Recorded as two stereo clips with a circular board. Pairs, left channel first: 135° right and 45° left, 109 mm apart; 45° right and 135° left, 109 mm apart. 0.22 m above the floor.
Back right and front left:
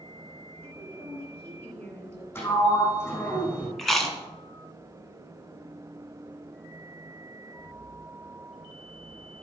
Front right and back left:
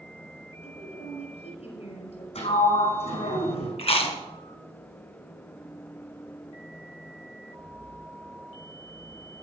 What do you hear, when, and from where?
0.6 s a woman speaking: 60° right, 5 m
2.4 s a sliding door: 65° right, 4.5 m
3.8 s chewing: 50° right, 1.9 m